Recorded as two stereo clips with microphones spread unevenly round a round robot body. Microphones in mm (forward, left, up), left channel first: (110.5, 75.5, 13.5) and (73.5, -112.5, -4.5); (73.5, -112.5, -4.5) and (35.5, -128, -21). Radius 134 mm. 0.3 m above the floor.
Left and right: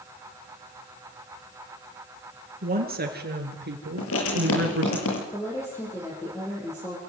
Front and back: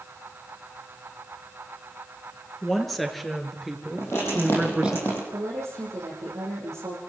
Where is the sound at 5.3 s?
160° left, 9.5 m.